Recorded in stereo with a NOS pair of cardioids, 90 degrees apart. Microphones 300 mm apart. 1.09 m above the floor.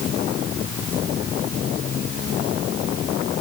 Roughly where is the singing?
I don't hear singing.